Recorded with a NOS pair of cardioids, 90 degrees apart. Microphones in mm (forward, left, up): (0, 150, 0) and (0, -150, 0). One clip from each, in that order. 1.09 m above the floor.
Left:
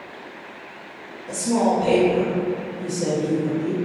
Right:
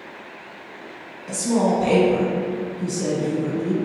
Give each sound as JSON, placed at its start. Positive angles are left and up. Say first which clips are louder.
{"t": 1.3, "sound": "a woman speaking", "louder": "even", "azimuth_deg": -35, "distance_m": 1.5}